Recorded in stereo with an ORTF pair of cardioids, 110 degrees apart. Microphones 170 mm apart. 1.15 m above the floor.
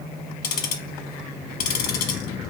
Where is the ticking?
70° left, 1.2 m.